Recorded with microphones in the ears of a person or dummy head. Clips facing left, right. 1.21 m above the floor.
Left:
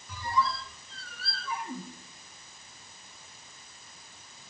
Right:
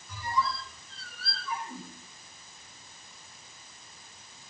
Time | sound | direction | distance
0.1 | a squeak | 70° left (ahead or behind) | 1.1 m